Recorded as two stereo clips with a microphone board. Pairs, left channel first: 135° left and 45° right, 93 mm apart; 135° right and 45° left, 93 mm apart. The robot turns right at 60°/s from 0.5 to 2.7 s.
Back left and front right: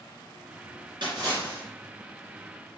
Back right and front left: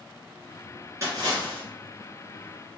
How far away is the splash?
About 1.9 m.